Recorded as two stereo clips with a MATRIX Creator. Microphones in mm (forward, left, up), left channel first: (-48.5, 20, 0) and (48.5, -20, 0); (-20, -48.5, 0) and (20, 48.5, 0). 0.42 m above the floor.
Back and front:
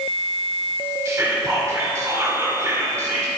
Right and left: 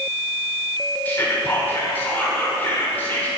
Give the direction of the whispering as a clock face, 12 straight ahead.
2 o'clock.